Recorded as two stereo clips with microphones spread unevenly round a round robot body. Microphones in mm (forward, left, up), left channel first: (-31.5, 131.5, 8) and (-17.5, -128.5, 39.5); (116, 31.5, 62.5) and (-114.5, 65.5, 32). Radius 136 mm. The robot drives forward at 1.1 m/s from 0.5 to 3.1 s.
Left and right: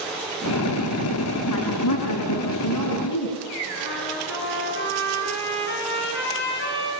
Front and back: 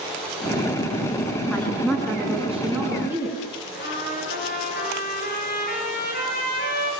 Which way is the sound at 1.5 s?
75° left.